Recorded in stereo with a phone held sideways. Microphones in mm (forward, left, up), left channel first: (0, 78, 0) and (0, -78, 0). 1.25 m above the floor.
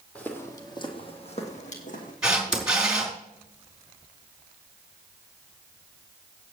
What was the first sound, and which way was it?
Footsteps, 10° left (ahead or behind).